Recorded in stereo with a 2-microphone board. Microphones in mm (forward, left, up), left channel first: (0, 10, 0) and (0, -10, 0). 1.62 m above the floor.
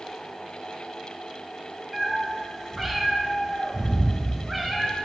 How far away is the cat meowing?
About 1.0 m.